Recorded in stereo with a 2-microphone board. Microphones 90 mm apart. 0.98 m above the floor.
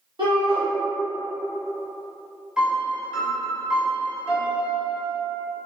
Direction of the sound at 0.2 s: 60° right (ahead or behind).